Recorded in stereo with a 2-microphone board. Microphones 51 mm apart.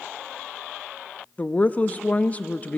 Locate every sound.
1.4 s a woman speaking: 35° left (ahead or behind), 0.6 m